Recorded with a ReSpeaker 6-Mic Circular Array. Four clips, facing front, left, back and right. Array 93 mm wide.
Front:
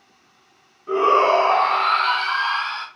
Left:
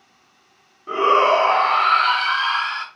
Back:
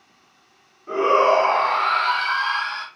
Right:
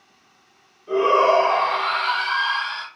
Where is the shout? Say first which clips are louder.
Left 1 dB, front 1 dB; 85° left, 1.5 m.